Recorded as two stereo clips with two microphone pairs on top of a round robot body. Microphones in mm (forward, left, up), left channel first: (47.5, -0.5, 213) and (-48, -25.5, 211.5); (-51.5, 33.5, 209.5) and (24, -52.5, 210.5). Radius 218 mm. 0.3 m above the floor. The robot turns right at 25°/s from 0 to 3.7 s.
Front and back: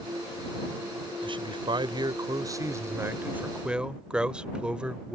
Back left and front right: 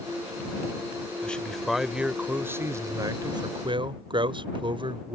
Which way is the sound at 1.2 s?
150° right.